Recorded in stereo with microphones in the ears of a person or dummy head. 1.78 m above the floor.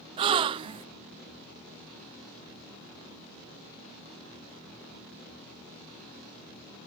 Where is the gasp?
30° right (ahead or behind), 0.6 m.